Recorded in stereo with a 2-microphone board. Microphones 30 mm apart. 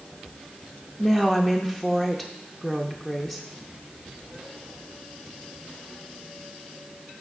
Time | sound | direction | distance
1.0 | a woman speaking | 10° left (ahead or behind) | 0.7 m